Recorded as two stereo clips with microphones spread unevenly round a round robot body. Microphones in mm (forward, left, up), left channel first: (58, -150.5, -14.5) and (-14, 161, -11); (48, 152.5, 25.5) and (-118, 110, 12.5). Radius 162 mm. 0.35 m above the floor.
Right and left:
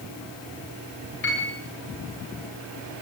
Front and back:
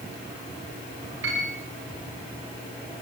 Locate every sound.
1.2 s a piano: 135° right, 6.5 m